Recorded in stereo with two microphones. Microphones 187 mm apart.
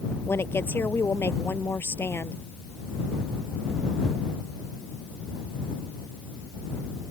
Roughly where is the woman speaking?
Centre.